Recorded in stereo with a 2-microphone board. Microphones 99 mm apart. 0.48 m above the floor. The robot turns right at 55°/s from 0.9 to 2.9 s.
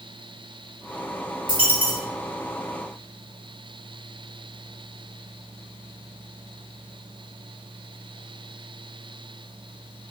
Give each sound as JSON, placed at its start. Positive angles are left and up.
{"t": 1.5, "sound": "a dropped coin", "side_deg": -55, "distance_m": 1.6}